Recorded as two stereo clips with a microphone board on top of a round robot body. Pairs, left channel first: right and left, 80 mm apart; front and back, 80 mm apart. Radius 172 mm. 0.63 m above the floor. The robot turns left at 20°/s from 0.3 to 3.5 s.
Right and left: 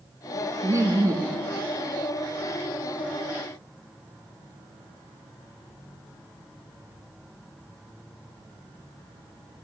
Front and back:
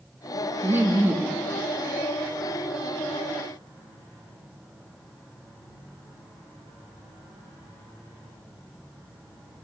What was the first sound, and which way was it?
Laughter, 130° left.